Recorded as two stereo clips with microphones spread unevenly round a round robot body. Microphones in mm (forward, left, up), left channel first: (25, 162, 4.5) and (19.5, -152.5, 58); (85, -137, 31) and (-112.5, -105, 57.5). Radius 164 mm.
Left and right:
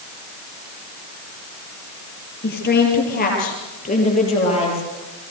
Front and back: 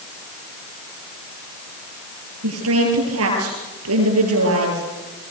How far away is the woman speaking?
About 10 m.